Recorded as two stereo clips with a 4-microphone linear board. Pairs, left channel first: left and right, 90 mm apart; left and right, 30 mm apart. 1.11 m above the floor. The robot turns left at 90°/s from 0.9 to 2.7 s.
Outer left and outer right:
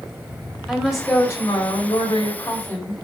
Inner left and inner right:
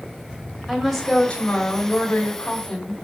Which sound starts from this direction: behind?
A woman speaking, at 0.7 s.